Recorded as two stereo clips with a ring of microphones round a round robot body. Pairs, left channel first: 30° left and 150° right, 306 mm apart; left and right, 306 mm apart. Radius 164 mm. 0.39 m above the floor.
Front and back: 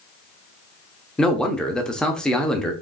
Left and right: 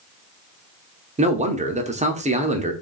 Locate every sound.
1.2 s a man speaking: 55° right, 0.8 m